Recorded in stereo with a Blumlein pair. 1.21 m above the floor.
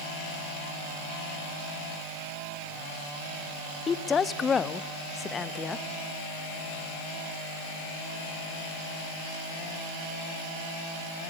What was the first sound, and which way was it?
A woman speaking, 20° left.